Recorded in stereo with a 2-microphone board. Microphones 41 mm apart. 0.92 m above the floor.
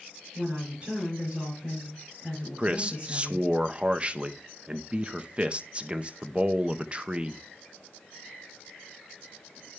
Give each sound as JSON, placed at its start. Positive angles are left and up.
{"t": 0.3, "sound": "a woman speaking", "side_deg": -30, "distance_m": 7.0}
{"t": 2.6, "sound": "a man speaking", "side_deg": -30, "distance_m": 0.6}